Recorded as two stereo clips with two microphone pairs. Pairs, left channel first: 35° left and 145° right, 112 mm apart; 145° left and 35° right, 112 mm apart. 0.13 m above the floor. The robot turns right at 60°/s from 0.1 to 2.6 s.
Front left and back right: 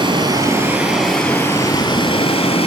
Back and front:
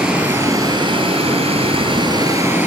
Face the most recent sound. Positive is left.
turn(degrees=35)